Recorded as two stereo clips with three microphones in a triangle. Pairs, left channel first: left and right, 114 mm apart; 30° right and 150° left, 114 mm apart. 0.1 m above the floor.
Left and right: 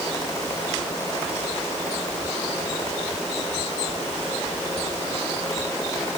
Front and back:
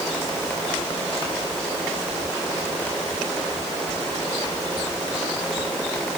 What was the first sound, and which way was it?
Only background noise.